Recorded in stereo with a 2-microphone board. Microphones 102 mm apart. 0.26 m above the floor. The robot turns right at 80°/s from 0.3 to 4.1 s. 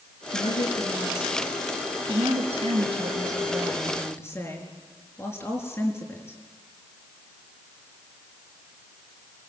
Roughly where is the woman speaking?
Left.